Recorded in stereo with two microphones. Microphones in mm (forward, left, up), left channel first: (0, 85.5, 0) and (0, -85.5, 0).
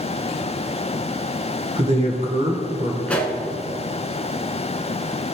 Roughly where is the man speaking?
Right.